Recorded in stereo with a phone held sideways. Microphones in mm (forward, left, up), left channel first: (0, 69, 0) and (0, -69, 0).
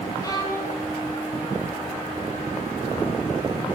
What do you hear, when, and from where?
0.2 s a violin: 25° left (ahead or behind), 7 m